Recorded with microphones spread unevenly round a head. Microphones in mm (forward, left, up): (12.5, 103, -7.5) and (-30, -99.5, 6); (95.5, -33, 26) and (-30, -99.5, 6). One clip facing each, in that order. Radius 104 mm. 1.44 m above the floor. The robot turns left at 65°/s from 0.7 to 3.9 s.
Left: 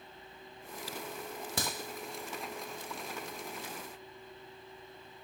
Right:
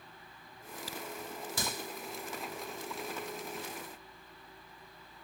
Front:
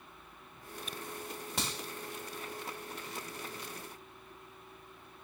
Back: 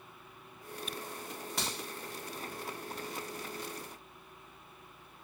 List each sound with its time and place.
1.6 s a crack: 85° left, 1.0 m; by 1.7 s 75° left, 1.0 m